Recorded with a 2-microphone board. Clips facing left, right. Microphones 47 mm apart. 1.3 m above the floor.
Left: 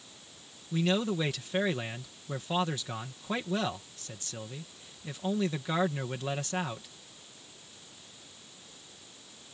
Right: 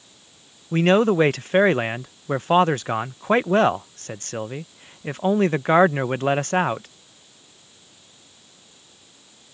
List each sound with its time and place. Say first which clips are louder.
0.7 s a man speaking: right 12 dB; 50° right (ahead or behind)